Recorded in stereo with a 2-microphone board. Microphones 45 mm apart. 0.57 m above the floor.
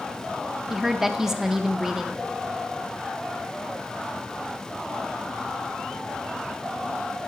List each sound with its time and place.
0.7 s a woman speaking: 10° right (ahead or behind), 0.6 m